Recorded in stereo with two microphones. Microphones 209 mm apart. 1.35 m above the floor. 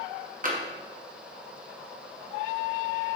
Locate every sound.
0.4 s tapping: 40° right (ahead or behind), 1.0 m